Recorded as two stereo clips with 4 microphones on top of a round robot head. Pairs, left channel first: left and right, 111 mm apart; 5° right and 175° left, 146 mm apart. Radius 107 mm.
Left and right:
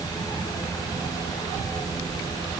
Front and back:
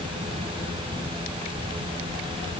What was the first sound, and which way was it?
Only background noise.